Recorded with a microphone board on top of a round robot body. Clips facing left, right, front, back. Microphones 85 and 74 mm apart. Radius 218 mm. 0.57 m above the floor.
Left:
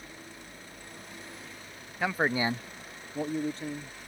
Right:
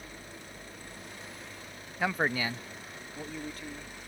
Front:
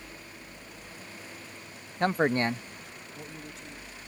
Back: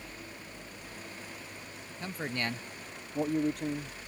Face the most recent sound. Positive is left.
turn(degrees=155)